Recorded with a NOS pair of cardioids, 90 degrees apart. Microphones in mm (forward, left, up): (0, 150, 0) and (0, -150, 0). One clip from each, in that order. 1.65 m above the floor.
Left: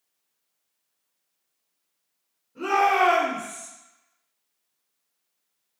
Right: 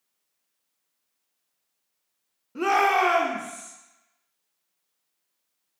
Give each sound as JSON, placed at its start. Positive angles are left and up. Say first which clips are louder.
{"t": 2.5, "sound": "a shout", "louder": "even", "azimuth_deg": -70, "distance_m": 0.7}